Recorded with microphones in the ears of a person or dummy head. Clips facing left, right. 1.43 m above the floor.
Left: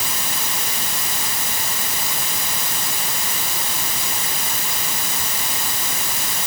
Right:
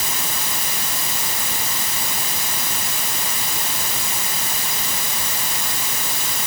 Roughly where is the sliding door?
I don't hear a sliding door.